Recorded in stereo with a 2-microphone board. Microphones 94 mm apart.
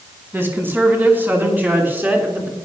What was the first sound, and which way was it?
A woman speaking, 25° right (ahead or behind).